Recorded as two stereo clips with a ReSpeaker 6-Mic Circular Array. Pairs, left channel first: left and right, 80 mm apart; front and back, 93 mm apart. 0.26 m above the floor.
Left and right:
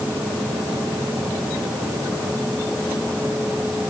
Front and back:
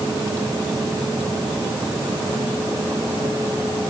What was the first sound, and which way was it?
Only background noise.